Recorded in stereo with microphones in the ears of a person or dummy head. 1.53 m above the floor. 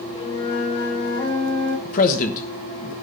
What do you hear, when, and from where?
0.1 s a flute: 25° left (ahead or behind), 4.5 m
1.9 s a man speaking: 45° left (ahead or behind), 1.3 m